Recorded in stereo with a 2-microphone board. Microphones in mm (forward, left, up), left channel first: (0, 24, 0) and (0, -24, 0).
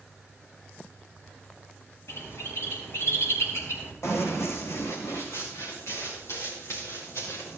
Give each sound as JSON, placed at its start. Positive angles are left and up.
{"t": 2.1, "sound": "a bird", "side_deg": 70, "distance_m": 4.5}
{"t": 4.0, "sound": "running footsteps", "side_deg": 75, "distance_m": 3.5}